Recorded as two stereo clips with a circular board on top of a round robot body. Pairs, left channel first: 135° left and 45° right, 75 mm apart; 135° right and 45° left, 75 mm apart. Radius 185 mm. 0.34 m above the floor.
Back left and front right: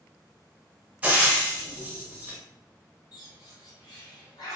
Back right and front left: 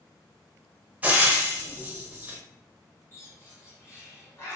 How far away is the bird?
About 1.3 m.